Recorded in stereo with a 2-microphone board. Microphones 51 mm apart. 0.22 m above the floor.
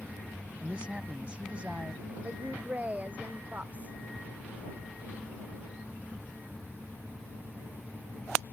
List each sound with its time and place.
0.6 s a man speaking: 25° right (ahead or behind)
2.2 s a woman speaking: 30° right (ahead or behind)